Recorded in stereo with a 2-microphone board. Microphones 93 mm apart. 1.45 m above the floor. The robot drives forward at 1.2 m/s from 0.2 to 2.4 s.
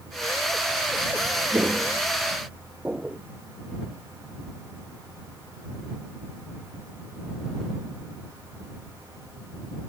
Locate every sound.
1.5 s footsteps: 30° right (ahead or behind); by 3.2 s 15° right (ahead or behind)